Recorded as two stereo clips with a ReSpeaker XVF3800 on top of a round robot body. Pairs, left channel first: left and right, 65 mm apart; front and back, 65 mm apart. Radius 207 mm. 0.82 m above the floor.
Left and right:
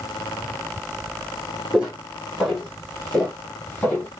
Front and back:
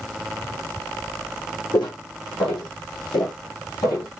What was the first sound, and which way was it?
Footsteps, 10° right.